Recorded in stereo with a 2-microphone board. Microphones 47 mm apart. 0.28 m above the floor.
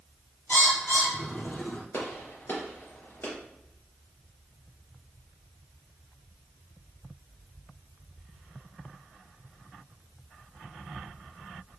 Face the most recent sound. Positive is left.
turn(degrees=55)  # may be behind; listen again after turning